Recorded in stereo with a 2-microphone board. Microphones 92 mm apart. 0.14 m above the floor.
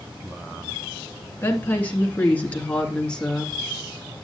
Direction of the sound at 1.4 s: 25° left (ahead or behind).